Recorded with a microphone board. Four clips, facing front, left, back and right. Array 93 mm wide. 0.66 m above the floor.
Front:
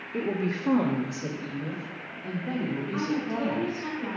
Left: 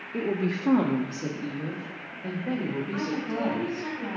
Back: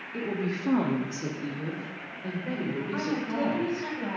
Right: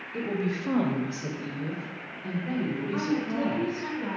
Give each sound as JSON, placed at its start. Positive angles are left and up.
{"t": 0.1, "sound": "a woman speaking", "azimuth_deg": 55, "distance_m": 0.7}
{"t": 2.9, "sound": "a woman speaking", "azimuth_deg": 175, "distance_m": 3.0}